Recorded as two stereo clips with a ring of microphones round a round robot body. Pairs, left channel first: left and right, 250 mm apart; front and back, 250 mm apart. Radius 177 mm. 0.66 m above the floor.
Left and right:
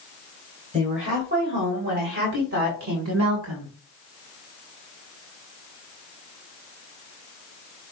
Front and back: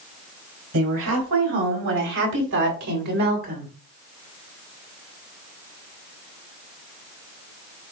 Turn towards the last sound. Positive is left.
turn(degrees=-130)